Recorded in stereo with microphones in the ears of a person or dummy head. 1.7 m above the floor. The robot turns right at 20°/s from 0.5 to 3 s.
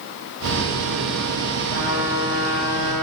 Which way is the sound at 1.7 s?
60° right (ahead or behind).